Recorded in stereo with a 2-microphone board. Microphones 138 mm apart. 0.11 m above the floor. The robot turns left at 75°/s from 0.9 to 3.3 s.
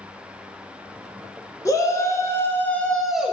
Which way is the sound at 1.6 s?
25° left (ahead or behind).